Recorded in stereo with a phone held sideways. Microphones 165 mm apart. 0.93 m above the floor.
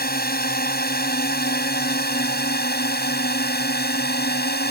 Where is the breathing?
No breathing in this recording.